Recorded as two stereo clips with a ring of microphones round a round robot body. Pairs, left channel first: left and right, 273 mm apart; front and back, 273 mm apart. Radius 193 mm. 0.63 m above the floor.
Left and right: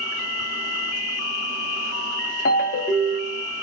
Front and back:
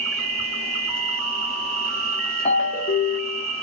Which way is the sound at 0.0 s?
95° left.